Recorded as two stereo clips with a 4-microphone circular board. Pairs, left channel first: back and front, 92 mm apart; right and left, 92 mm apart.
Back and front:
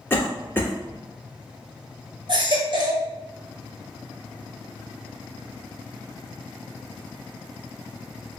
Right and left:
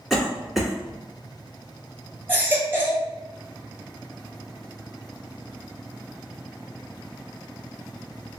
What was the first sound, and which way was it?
A cough, 175° left.